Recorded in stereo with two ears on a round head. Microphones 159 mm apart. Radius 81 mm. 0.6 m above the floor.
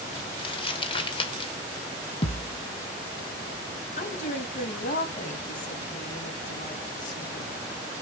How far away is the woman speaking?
About 4 m.